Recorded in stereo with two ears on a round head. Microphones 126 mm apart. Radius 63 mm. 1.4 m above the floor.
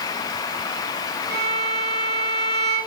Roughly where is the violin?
Right.